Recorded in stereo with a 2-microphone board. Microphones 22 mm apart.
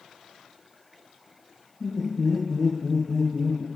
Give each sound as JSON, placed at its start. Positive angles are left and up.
{"t": 1.8, "sound": "laughter", "side_deg": 30, "distance_m": 1.4}